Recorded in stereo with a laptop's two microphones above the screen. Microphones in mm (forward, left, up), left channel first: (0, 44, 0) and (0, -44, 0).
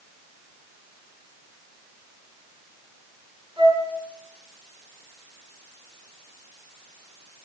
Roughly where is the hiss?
I don't hear a hiss.